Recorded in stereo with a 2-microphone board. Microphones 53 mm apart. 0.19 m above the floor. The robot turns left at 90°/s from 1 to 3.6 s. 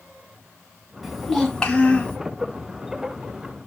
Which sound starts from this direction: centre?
A child speaking, at 1.0 s.